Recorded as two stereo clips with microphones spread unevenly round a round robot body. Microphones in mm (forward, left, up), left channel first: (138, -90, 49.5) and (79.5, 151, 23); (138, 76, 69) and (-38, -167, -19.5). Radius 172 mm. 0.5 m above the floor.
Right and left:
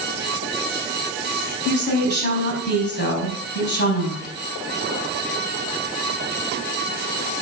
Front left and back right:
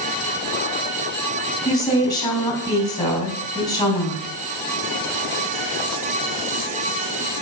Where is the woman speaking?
25° right, 4.5 m.